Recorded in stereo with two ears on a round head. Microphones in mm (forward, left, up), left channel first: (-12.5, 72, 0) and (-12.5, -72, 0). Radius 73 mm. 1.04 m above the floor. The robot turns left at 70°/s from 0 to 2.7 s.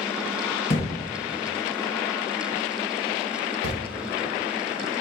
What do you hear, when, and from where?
0.7 s a thud: 35° left (ahead or behind), 2 m; by 3.8 s 65° right (ahead or behind), 2 m